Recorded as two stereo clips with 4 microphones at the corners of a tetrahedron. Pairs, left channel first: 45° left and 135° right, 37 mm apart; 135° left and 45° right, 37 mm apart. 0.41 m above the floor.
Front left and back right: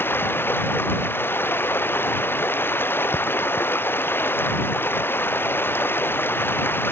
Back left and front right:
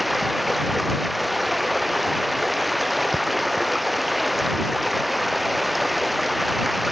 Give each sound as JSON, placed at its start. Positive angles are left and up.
{"t": 0.0, "sound": "running water", "azimuth_deg": 45}